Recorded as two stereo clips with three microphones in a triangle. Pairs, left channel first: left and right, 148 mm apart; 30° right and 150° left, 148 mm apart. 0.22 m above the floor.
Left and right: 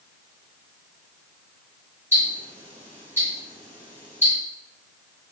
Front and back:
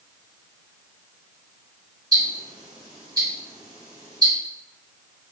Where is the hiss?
No hiss in this recording.